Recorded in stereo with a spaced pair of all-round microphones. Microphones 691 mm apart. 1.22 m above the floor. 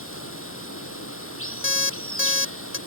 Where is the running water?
15° left (ahead or behind).